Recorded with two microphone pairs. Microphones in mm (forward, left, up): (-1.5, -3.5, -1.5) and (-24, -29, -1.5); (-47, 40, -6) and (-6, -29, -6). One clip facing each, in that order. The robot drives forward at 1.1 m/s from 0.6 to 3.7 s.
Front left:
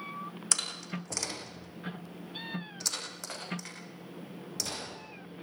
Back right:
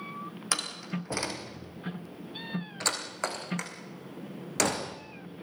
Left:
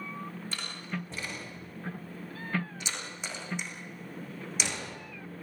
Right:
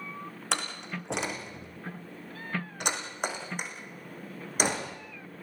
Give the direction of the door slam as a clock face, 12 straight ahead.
2 o'clock.